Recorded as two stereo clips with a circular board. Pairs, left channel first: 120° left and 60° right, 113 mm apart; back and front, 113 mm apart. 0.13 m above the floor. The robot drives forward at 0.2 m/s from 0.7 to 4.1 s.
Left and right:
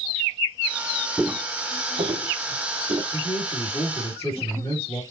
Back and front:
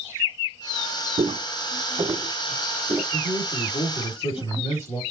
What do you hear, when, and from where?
1.2 s footsteps: 15° left, 0.6 m; by 3.0 s 65° right, 1.7 m
3.1 s a man speaking: 160° left, 2.0 m